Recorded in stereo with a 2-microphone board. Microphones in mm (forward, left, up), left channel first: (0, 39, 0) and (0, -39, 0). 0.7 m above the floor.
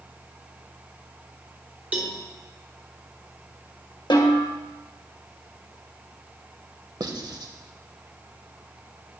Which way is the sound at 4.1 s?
75° left (ahead or behind).